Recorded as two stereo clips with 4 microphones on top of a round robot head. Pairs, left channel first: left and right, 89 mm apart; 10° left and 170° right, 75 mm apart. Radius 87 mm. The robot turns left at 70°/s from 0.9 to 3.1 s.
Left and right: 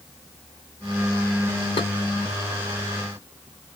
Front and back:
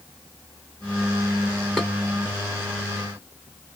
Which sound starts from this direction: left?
Dishes clattering, at 1.8 s.